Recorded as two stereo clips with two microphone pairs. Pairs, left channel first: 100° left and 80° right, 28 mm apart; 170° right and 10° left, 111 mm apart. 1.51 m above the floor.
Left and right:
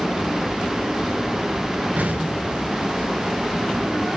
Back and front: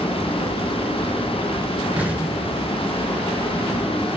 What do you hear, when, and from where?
2.0 s an explosion: 65° right, 7 m